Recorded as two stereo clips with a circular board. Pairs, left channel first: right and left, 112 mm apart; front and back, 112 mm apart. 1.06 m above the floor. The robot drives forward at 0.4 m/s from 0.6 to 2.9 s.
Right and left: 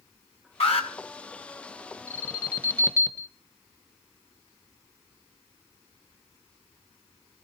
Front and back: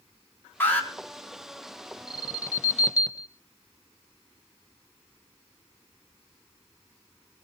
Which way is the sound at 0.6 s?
70° right.